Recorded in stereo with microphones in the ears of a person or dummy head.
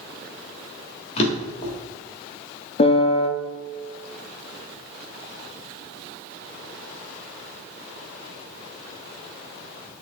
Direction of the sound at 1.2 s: 40° left (ahead or behind).